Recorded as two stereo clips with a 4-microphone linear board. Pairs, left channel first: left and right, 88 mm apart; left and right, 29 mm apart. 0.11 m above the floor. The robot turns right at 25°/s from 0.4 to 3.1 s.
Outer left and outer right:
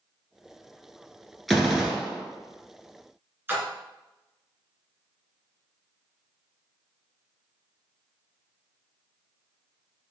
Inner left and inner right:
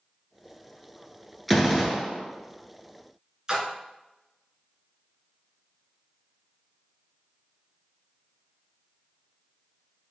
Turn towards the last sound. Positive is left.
turn(degrees=-25)  # may be behind; listen again after turning